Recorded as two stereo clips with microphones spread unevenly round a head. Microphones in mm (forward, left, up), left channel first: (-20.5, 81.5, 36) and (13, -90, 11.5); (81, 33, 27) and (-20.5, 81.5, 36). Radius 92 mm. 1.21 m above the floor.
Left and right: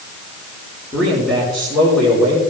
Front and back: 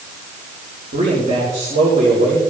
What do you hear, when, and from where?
0.9 s a man speaking: 175° right, 4.5 m